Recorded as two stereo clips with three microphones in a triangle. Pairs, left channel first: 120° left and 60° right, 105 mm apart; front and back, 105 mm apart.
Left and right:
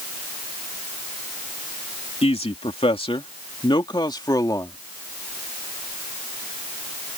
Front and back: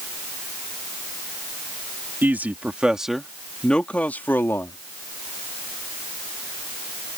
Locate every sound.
2.2 s a man speaking: 110° left; by 4.8 s 65° left